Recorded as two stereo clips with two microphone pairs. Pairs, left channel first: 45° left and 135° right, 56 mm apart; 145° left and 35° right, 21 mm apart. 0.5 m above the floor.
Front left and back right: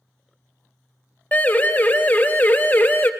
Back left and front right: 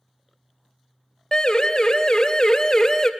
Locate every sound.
1.3 s a siren: 95° left, 3 m; by 3.1 s 90° left, 2 m